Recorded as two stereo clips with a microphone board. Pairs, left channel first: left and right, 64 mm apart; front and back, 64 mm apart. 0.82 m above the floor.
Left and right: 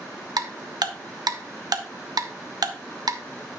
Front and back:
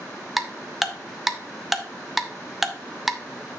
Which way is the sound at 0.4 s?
95° right.